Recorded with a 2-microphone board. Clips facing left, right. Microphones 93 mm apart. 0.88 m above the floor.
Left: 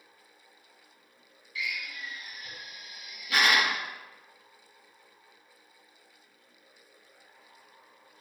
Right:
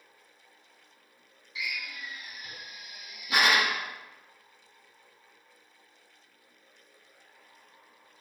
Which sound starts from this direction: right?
A drill, at 1.6 s.